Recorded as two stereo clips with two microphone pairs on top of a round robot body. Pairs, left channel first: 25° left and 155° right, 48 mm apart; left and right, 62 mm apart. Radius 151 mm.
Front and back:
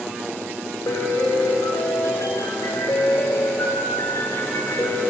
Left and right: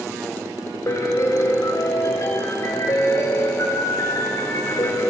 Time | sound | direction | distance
0.9 | a piano | 45° left | 0.6 m